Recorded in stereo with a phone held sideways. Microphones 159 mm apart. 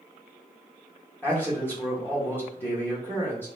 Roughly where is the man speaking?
Centre.